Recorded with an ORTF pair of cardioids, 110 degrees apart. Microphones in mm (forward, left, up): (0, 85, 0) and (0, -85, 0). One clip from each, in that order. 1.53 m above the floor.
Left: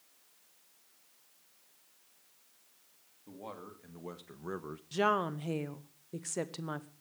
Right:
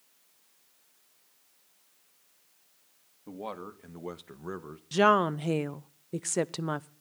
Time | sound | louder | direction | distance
3.3 | a man speaking | right 7 dB | 45° right | 2.5 m
4.9 | a woman speaking | right 7 dB | 35° right | 0.8 m